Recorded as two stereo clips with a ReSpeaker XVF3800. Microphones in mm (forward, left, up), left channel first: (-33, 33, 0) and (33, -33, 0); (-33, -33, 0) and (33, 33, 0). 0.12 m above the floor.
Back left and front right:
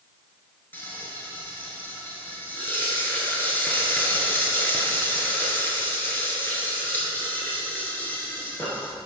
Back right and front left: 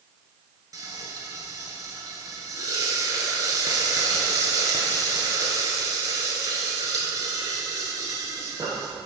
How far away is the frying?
About 1.3 m.